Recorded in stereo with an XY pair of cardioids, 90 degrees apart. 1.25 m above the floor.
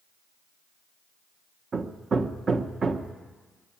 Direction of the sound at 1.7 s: 40° right.